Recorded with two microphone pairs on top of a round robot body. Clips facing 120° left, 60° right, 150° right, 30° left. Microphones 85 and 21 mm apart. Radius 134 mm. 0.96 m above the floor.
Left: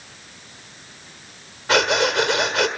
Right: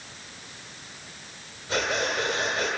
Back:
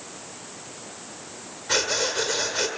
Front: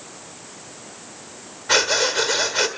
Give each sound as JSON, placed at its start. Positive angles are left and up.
{"t": 1.7, "sound": "breathing", "azimuth_deg": 95, "distance_m": 1.5}